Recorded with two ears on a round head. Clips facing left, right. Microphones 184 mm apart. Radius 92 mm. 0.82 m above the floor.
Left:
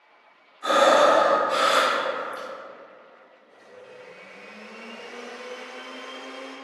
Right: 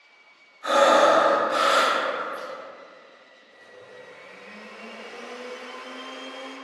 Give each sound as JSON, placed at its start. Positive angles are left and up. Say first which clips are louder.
{"t": 0.6, "sound": "breathing", "louder": "even", "side_deg": 50, "distance_m": 0.9}
{"t": 3.5, "sound": "a blender", "louder": "left 1 dB", "side_deg": 35, "distance_m": 1.5}